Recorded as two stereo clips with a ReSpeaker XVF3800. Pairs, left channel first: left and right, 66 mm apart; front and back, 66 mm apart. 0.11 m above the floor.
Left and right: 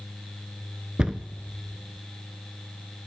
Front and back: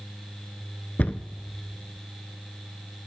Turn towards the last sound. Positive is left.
turn(degrees=-30)